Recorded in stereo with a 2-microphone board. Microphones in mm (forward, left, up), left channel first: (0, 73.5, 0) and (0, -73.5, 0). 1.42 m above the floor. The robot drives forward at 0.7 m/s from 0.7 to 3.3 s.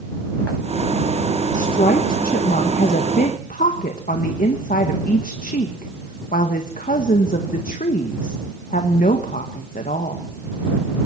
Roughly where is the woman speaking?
Left.